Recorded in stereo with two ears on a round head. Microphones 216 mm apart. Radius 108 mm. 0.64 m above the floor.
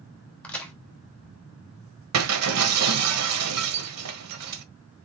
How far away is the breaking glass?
About 1.4 m.